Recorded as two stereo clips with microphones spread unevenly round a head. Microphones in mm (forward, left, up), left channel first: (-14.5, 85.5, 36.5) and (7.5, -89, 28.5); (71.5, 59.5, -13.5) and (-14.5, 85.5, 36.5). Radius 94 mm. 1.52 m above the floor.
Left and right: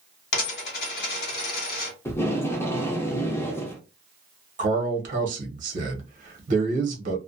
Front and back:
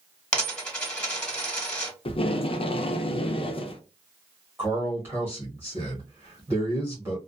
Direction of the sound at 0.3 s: 80° left.